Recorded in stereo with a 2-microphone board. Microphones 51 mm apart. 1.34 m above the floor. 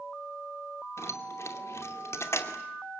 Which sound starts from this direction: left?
Keys jangling, at 1.0 s.